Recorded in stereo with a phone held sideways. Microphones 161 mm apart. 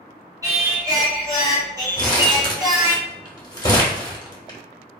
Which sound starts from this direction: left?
Crumpling, at 2.0 s.